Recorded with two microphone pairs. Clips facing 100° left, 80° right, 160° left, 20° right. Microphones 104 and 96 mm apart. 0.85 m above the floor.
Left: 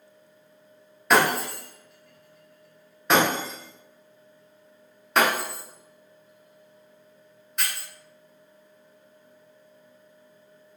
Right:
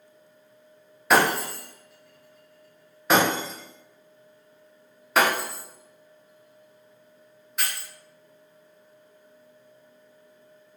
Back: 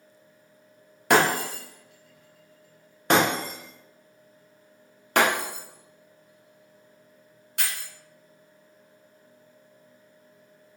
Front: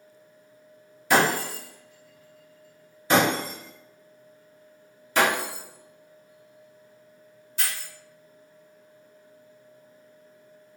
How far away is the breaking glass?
About 0.9 m.